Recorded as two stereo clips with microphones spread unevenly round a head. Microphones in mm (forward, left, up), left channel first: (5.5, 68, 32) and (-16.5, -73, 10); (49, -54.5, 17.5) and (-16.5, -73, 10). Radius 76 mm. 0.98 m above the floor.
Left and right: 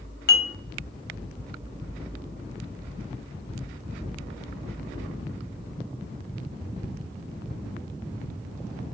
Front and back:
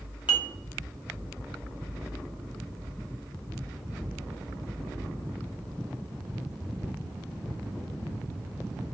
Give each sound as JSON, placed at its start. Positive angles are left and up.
{"t": 0.3, "sound": "dishes clattering", "azimuth_deg": 55, "distance_m": 0.7}